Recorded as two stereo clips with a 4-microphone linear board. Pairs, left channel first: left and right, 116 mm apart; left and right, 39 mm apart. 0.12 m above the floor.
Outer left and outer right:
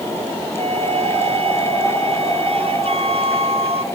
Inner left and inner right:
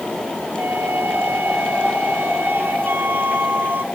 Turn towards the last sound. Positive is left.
turn(degrees=-60)  # may be behind; listen again after turning